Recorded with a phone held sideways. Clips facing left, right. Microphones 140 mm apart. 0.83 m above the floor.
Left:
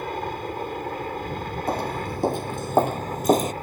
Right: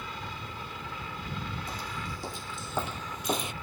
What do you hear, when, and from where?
0.0 s a helicopter: 50° left (ahead or behind); by 3.6 s 45° left (ahead or behind)
1.7 s footsteps: 60° left (ahead or behind); by 3.5 s 40° left (ahead or behind)